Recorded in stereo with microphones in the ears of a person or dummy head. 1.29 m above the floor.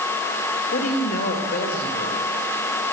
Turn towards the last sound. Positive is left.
turn(degrees=55)  # may be behind; listen again after turning